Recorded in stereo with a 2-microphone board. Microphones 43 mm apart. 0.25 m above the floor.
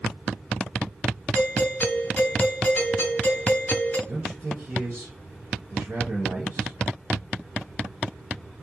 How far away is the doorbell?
About 1.5 m.